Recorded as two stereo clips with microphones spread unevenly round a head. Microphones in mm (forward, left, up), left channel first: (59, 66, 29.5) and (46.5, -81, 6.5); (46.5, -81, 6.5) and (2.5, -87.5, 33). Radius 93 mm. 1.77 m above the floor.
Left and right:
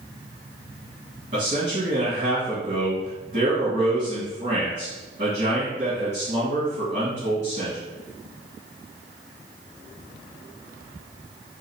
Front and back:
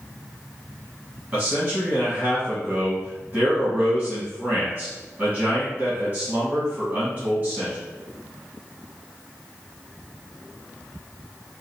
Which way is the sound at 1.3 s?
155° right.